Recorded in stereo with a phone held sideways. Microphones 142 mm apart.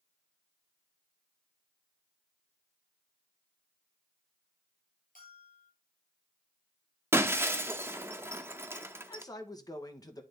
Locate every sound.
5.2 s a bell: 75° left (ahead or behind), 5 m
7.1 s breaking glass: 15° right (ahead or behind), 0.8 m
9.1 s a man speaking: 25° left (ahead or behind), 1.2 m